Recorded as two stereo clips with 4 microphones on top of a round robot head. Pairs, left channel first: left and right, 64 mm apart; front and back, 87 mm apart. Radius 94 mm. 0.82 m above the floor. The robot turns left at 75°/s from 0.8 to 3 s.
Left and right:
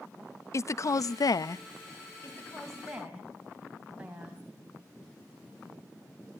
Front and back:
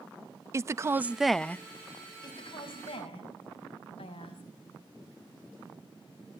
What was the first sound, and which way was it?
A woman speaking, 125° left.